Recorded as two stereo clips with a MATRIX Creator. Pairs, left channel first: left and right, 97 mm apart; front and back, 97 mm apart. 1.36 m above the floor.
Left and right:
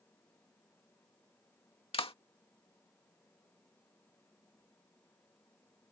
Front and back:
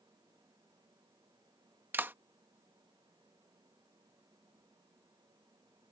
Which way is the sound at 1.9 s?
110° left.